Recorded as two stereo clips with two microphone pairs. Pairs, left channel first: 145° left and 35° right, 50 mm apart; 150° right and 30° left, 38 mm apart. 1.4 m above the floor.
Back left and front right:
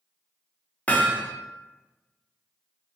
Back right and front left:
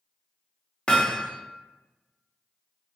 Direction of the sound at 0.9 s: 170° left.